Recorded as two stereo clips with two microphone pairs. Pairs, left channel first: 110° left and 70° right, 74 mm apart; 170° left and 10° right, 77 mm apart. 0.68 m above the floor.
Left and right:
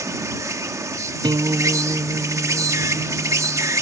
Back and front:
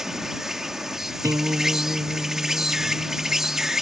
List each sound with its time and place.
0.0 s an insect: 90° right
1.2 s a guitar: 55° right